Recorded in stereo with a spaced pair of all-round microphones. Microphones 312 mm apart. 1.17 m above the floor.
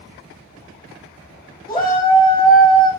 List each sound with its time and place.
1.7 s a shout: 15° left (ahead or behind), 0.9 m